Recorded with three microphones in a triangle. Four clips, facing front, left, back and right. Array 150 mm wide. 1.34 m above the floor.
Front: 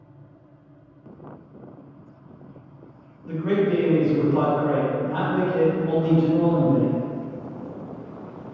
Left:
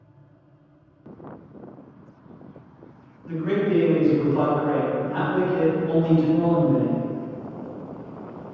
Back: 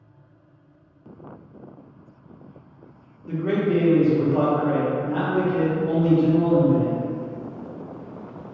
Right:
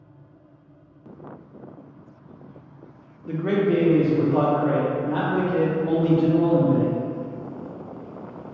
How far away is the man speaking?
About 0.9 m.